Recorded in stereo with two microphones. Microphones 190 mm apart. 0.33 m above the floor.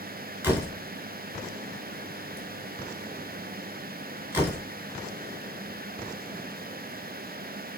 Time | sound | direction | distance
0.4 | a door slam | 10° right (ahead or behind) | 4 m